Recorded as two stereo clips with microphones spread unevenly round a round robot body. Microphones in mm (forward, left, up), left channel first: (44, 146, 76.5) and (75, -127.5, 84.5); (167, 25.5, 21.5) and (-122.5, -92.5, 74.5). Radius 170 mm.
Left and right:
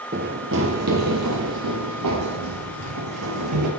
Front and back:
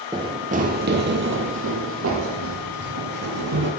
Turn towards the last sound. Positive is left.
turn(degrees=-120)